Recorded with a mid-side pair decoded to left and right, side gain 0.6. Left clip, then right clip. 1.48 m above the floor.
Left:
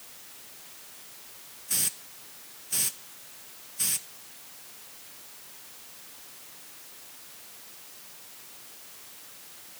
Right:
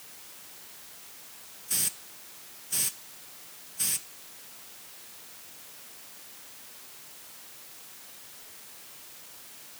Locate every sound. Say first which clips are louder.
1.7 s a hiss: left 1 dB; 5° left